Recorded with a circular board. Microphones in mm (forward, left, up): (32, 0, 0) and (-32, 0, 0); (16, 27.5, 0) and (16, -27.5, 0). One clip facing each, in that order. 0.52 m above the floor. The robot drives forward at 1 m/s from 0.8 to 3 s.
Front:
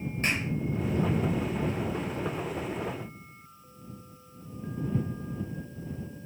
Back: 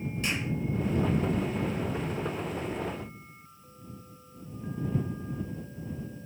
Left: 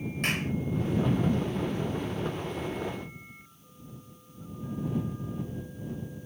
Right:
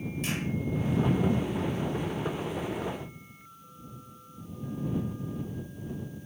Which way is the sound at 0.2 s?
55° left.